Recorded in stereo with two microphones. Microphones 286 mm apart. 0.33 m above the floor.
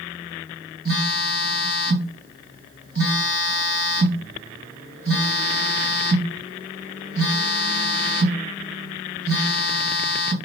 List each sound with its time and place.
0.8 s a phone buzzing: 45° right (ahead or behind), 1.9 m